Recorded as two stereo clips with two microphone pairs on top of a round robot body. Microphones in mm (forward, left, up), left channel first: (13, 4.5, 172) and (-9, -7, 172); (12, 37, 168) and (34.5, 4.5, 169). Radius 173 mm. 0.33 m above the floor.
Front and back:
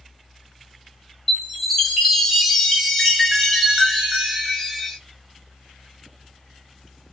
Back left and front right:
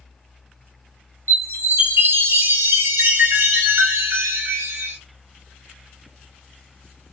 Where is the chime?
65° right, 1.2 m.